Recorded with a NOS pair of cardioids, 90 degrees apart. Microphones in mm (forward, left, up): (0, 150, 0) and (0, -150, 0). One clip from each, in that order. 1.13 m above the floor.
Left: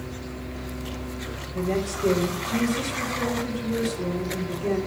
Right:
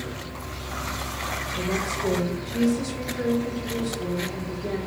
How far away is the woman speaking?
About 3.5 m.